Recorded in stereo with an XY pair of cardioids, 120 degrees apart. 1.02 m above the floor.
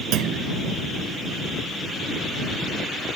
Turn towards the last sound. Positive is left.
turn(degrees=-70)